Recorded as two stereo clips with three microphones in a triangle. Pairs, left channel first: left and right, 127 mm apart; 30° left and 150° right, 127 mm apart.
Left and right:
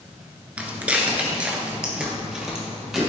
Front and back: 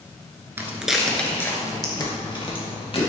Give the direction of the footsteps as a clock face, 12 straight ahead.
5 o'clock.